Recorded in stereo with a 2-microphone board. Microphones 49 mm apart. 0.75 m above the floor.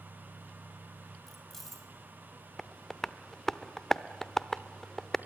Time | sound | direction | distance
1.3 | keys jangling | 5° left (ahead or behind) | 3 m
2.6 | tapping | 10° left (ahead or behind) | 0.6 m